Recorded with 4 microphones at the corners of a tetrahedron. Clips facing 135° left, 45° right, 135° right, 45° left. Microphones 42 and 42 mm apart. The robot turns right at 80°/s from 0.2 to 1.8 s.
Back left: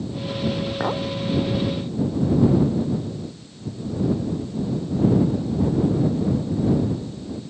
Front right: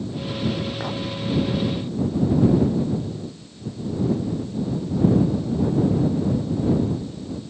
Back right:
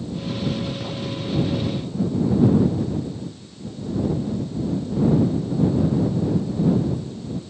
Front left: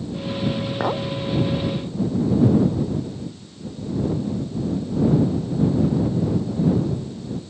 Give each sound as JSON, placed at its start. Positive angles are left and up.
{"t": 0.8, "sound": "a clink", "azimuth_deg": 65}